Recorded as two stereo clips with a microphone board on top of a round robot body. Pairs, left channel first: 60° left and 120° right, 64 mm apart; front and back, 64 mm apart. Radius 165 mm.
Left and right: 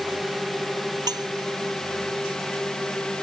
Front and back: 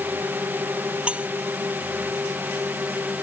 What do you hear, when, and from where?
0.0 s a drone: 145° left; by 3.2 s 135° left
1.1 s cutlery clinking: 105° right